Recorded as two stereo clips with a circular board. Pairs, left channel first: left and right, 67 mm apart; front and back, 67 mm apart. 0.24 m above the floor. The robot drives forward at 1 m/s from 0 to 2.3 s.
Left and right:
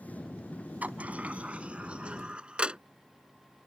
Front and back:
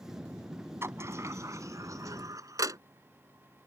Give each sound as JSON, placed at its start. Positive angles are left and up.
{"t": 0.8, "sound": "a sliding door", "azimuth_deg": -150}